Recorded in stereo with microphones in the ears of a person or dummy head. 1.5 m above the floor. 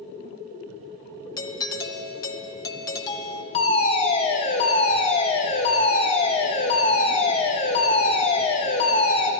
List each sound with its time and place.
1.4 s a doorbell: 15° left (ahead or behind), 0.6 m
3.5 s a fire alarm: 30° left (ahead or behind), 1.1 m